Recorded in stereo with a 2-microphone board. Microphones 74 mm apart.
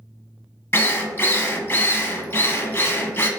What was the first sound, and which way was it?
A drill, 30° left (ahead or behind).